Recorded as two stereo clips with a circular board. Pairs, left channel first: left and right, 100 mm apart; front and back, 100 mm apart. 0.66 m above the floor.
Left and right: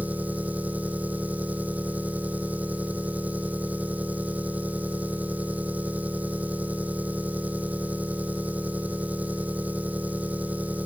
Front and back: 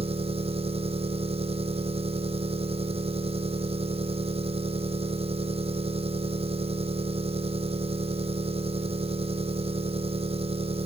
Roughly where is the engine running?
Behind.